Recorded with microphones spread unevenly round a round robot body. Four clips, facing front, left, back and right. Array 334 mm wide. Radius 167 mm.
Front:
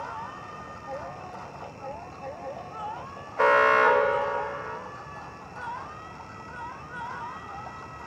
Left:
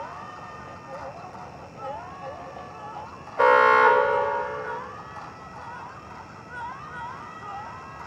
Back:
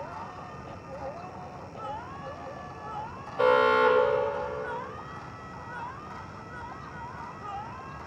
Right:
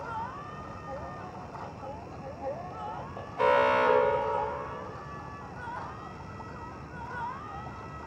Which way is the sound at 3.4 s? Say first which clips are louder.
Left 7 dB, front 1 dB; 90° left.